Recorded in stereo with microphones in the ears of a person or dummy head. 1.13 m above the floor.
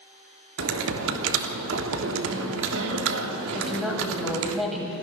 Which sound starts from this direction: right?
Typing on a keyboard, at 0.6 s.